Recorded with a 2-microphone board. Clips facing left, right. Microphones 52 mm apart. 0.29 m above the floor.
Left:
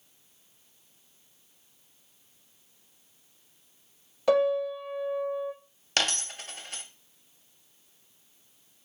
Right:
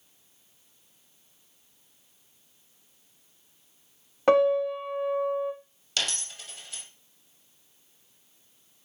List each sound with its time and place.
4.3 s a piano: 40° right (ahead or behind), 0.7 m
6.0 s a dropped coin: 50° left (ahead or behind), 0.6 m